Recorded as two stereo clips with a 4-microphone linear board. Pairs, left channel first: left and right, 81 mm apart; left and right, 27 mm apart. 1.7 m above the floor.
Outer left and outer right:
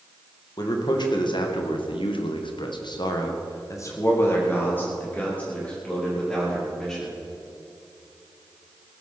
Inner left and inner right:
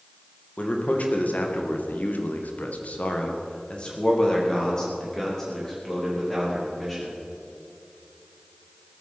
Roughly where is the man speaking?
Left.